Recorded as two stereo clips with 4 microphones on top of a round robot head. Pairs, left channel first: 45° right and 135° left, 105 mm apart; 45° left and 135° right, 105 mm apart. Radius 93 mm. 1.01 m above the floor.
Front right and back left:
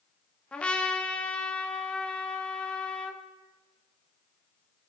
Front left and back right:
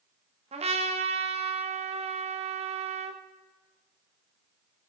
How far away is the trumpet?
About 1.7 m.